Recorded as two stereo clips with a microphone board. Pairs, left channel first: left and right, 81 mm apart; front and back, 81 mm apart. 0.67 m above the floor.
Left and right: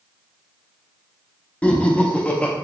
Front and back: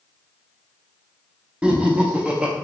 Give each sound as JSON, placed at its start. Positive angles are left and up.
{"t": 1.6, "sound": "laughter", "azimuth_deg": 130, "distance_m": 0.6}